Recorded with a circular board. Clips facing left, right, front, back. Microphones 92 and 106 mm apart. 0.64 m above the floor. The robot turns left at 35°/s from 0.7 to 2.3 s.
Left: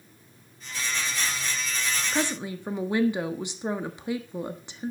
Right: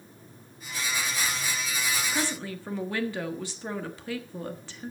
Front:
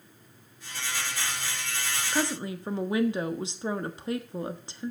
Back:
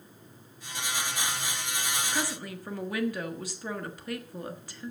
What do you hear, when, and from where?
2.1 s a woman speaking: 45° left, 1.2 m; by 4.9 s 40° left, 1.2 m